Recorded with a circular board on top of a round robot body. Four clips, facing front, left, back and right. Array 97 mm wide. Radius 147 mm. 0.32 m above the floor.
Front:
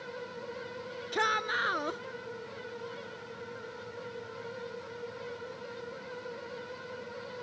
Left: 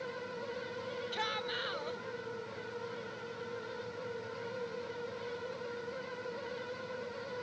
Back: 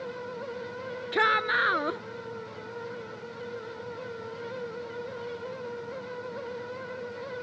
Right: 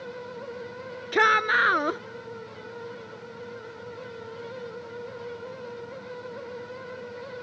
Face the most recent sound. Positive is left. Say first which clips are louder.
# right 20 dB, back 5 dB
turn(degrees=-105)